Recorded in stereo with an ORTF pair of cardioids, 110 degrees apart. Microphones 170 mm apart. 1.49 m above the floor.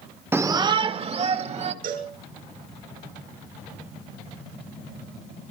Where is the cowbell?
65° right, 5 m.